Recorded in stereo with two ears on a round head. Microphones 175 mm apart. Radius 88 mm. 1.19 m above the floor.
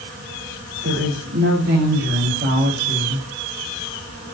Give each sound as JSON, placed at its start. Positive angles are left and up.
{"t": 0.8, "sound": "a woman speaking", "side_deg": -60, "distance_m": 5.5}